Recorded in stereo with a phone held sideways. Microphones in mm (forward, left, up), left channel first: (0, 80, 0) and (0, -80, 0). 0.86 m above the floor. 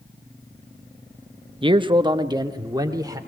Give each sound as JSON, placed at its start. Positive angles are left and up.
{"t": 1.6, "sound": "a man speaking", "side_deg": -30, "distance_m": 0.8}